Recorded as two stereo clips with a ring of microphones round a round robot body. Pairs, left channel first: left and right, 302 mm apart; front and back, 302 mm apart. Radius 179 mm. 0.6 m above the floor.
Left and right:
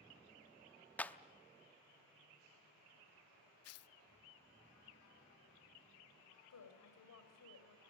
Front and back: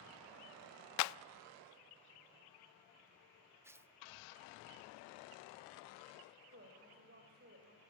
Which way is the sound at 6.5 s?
120° left.